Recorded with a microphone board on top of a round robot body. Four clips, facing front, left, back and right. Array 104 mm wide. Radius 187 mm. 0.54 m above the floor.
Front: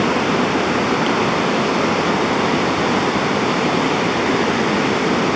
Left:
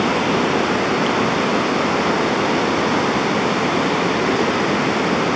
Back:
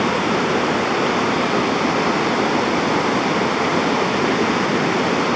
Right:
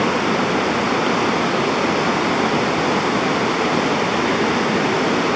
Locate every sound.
Only background noise.